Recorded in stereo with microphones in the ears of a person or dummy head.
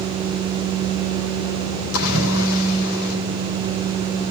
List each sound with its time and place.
1.9 s a splash: 75° left (ahead or behind), 4 m